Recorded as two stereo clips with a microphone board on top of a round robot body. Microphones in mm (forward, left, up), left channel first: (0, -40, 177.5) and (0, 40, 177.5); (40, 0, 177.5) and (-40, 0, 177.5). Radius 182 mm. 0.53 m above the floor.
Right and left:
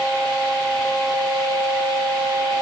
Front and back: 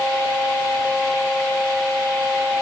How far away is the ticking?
No ticking in this recording.